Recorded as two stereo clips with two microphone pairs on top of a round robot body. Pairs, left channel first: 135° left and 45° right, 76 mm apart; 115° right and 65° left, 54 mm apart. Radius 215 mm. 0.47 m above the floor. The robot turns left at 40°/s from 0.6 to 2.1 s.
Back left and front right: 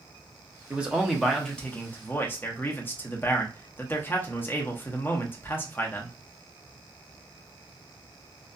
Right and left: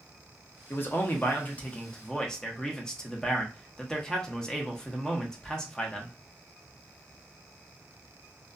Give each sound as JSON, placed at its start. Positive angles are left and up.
{"t": 0.7, "sound": "a man speaking", "azimuth_deg": -120, "distance_m": 1.1}